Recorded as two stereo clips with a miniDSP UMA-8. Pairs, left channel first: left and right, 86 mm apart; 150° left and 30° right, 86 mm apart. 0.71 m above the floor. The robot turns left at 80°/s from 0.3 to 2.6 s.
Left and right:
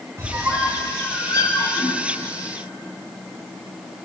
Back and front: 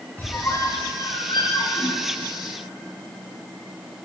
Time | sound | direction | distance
0.2 | a squeak | 140° right | 0.8 m